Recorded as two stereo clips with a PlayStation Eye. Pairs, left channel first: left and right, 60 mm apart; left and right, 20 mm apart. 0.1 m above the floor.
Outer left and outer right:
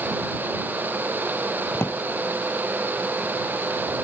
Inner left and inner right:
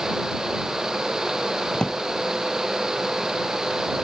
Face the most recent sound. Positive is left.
turn(degrees=40)  # may be behind; listen again after turning